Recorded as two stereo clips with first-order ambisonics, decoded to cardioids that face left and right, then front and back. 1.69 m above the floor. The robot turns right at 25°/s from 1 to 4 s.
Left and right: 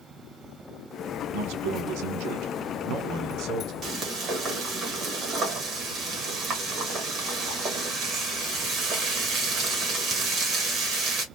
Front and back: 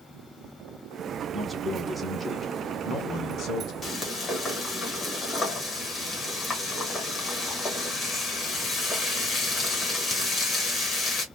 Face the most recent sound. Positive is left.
turn(degrees=-55)